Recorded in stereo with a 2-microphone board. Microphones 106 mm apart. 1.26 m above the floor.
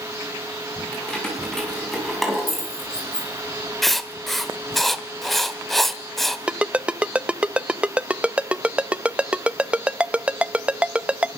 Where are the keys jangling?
10° left (ahead or behind), 6.5 m; by 4.8 s 20° right (ahead or behind), 6 m.